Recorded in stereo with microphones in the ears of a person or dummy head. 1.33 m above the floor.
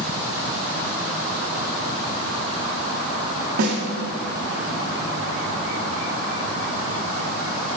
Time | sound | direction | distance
3.6 | a snare drum | 55° right (ahead or behind) | 1.7 m